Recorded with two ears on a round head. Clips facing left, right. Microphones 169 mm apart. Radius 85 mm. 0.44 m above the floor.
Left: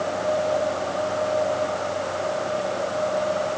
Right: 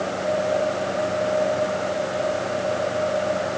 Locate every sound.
Only background noise.